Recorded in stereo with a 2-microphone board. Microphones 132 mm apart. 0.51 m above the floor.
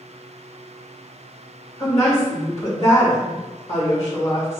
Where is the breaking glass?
No breaking glass in this recording.